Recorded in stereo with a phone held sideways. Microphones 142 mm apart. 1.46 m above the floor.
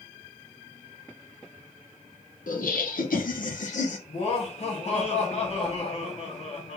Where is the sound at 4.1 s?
50° left (ahead or behind), 1.5 m.